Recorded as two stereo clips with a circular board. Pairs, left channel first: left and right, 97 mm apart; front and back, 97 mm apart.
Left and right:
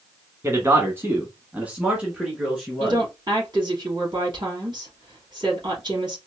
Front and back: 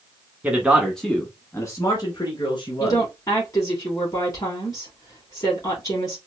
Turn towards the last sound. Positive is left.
turn(degrees=-50)